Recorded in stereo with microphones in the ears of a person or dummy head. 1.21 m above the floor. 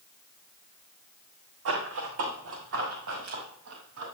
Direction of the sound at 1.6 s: 70° right (ahead or behind).